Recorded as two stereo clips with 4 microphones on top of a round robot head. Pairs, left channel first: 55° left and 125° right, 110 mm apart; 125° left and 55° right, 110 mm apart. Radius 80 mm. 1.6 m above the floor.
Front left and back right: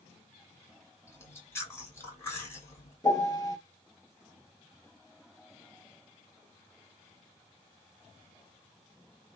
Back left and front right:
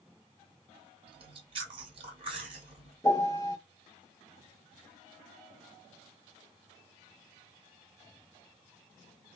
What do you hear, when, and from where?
1.1 s chewing: 15° right, 4 m
3.0 s a piano: 80° left, 1.4 m